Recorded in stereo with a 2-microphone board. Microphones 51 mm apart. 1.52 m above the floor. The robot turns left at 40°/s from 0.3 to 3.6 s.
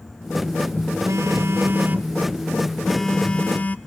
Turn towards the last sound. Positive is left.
turn(degrees=150)